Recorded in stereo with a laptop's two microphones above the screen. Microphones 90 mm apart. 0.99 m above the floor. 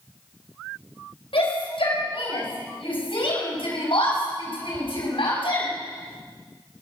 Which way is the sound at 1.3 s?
85° left.